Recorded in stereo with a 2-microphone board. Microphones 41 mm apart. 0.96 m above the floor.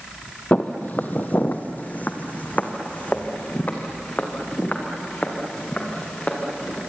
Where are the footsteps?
45° left (ahead or behind), 1.3 m; by 6.8 s 35° left (ahead or behind), 5.5 m.